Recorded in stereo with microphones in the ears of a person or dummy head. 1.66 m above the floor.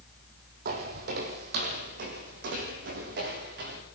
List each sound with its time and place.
0.7 s footsteps: 55° right (ahead or behind), 3.5 m; by 3.8 s 65° right (ahead or behind), 6.5 m